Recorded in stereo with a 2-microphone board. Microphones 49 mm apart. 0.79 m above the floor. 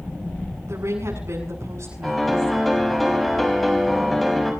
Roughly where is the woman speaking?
Right.